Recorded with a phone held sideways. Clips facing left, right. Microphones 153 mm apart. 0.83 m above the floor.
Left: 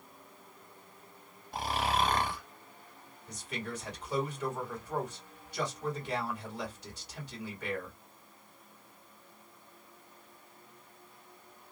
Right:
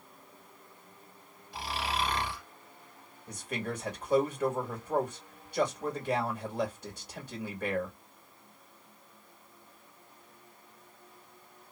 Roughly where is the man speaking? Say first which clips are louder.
Right 4 dB; right.